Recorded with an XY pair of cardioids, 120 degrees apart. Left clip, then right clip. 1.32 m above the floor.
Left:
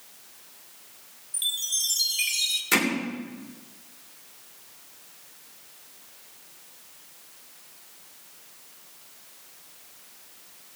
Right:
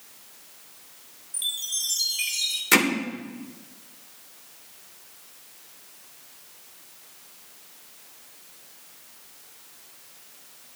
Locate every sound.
1.3 s a chime: 15° left, 1.3 m
2.7 s hammering: 25° right, 2.5 m